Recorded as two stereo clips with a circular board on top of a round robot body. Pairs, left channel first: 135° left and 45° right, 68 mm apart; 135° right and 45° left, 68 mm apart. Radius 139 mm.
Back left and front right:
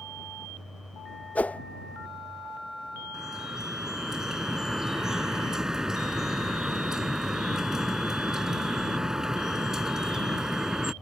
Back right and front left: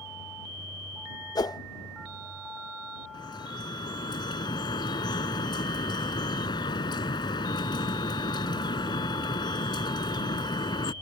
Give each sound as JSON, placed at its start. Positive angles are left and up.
{"t": 1.4, "sound": "a whoosh", "azimuth_deg": -155}
{"t": 3.1, "sound": "dripping", "azimuth_deg": -125}